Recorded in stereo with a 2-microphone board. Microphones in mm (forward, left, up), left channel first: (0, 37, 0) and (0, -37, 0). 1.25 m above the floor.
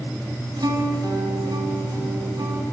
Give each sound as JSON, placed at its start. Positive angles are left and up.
{"t": 0.6, "sound": "a guitar", "side_deg": -70, "distance_m": 4.5}